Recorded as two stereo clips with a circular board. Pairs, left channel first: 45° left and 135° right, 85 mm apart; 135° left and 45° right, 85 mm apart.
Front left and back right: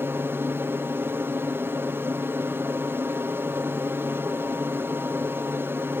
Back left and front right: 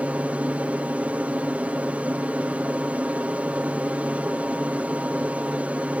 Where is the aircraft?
105° right.